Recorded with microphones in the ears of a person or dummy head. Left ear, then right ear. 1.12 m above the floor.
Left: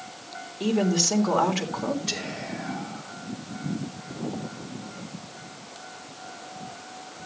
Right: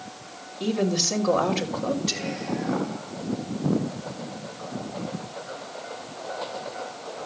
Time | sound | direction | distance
0.6 | a woman speaking | 30° left (ahead or behind) | 3 m
2.1 | whispering | 15° left (ahead or behind) | 3 m